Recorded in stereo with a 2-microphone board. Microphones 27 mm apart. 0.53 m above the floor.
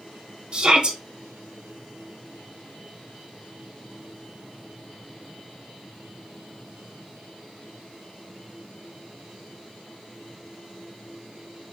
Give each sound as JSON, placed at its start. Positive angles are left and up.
{"t": 0.5, "sound": "a shout", "side_deg": -35, "distance_m": 0.7}